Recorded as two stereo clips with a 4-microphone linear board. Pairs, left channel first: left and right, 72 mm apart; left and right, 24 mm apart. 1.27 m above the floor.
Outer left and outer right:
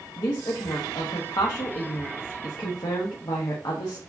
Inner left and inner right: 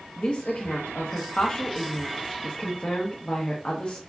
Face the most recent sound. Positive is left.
turn(degrees=75)  # may be behind; listen again after turning